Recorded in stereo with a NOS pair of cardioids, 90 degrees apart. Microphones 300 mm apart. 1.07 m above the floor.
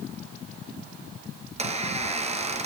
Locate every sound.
1.4 s a squeak: 20° right, 3.5 m